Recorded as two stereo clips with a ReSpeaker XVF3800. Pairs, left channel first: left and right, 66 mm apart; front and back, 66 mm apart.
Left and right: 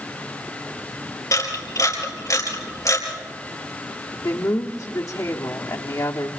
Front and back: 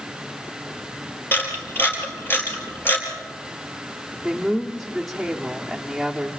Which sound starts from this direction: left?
A woman speaking, at 4.2 s.